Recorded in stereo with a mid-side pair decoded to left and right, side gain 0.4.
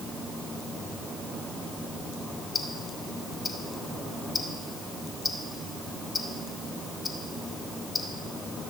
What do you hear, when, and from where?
2.5 s ticking: 35° left, 2 m